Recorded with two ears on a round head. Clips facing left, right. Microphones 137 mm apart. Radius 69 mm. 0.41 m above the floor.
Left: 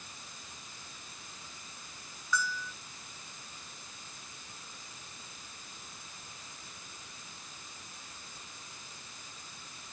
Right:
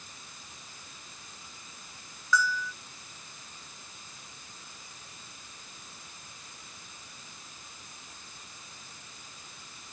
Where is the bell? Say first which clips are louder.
Right 6 dB; 60° right (ahead or behind).